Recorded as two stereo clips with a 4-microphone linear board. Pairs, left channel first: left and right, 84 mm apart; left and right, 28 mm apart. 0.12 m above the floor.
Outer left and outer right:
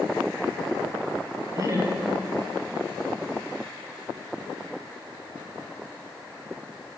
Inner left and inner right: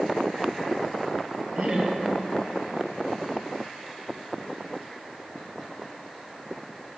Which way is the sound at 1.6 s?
40° right (ahead or behind).